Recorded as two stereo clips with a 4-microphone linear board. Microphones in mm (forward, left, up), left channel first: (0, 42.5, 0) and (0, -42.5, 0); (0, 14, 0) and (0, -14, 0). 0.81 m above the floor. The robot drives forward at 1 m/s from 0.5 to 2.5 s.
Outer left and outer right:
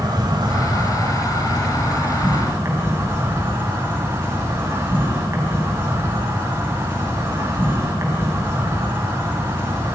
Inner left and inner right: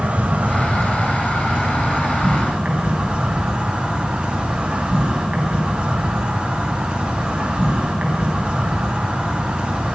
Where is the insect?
55° right (ahead or behind), 3 m; by 9.9 s 35° right (ahead or behind), 4.5 m.